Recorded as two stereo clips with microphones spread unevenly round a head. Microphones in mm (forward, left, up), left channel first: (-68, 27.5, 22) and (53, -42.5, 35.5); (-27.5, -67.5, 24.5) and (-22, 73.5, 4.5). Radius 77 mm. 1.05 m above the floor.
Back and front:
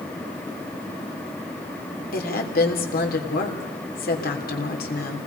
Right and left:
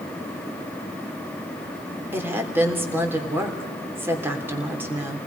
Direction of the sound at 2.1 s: 165° left.